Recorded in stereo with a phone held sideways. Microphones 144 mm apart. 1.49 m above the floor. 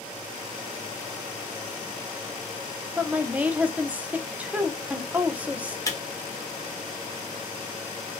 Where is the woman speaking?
10° right (ahead or behind), 0.6 m.